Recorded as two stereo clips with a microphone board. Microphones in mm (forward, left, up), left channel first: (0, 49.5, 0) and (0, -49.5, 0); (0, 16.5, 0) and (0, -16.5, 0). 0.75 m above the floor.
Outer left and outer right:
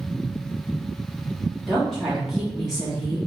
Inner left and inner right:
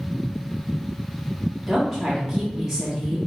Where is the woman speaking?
5° right (ahead or behind), 1.5 m.